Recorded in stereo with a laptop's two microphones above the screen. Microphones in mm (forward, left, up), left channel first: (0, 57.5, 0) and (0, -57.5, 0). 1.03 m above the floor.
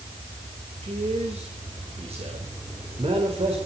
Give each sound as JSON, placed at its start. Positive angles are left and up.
{"t": 0.8, "sound": "a man speaking", "side_deg": -70, "distance_m": 4.0}